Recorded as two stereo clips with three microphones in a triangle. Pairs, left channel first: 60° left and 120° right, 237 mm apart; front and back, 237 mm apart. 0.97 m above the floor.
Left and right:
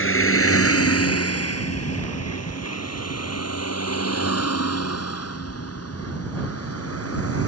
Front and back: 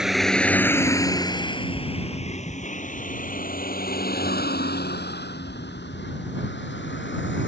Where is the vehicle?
90° left; by 7.5 s 40° left.